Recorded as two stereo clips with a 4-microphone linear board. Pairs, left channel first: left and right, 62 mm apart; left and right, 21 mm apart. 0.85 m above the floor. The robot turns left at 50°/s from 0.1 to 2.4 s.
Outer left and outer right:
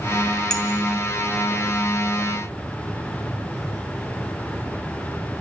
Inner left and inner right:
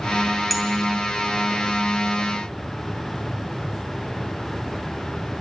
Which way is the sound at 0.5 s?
10° left (ahead or behind).